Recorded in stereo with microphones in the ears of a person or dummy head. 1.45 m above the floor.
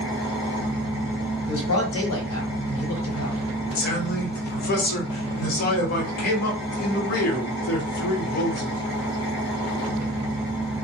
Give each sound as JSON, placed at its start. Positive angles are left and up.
{"t": 0.0, "sound": "an engine running", "side_deg": 30, "distance_m": 0.7}
{"t": 1.5, "sound": "a man speaking", "side_deg": 80, "distance_m": 0.9}
{"t": 3.8, "sound": "a man speaking", "side_deg": 55, "distance_m": 0.9}